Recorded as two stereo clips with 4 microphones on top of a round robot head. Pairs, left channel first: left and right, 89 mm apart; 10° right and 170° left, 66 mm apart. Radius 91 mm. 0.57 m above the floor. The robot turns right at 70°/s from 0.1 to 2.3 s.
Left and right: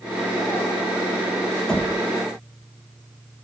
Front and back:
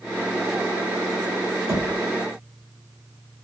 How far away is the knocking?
About 1.2 m.